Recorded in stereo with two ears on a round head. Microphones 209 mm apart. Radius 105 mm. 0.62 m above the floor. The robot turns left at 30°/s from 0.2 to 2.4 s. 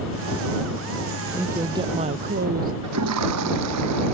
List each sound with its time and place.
1.3 s a woman speaking: 5° right; by 2.7 s 35° right
2.8 s a toilet flushing: 70° right (ahead or behind)